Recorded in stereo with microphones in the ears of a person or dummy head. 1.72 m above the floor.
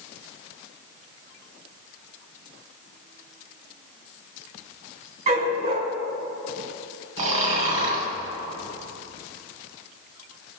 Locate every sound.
5.3 s a dog barking: 50° right (ahead or behind), 4 m
7.2 s snoring: 40° right (ahead or behind), 3.5 m